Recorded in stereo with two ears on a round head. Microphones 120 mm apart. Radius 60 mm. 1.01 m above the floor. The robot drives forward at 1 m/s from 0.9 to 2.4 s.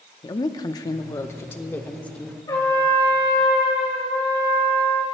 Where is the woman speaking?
30° left (ahead or behind), 0.8 m; by 2.4 s 10° left (ahead or behind), 1.9 m.